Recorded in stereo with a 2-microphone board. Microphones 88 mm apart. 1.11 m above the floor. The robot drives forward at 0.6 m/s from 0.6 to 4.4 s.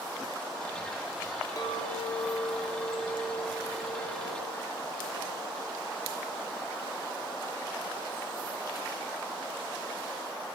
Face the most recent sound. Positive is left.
turn(degrees=85)